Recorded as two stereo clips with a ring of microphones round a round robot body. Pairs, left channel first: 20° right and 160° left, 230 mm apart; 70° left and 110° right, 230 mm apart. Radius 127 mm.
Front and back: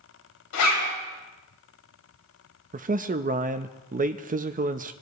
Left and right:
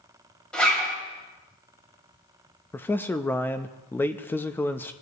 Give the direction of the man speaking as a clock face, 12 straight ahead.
7 o'clock.